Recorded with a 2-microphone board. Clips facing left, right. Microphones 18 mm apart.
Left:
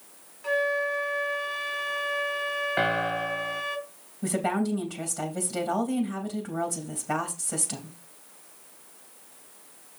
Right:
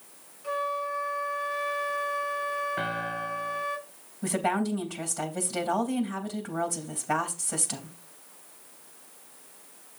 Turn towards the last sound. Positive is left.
turn(degrees=0)  # may be behind; listen again after turning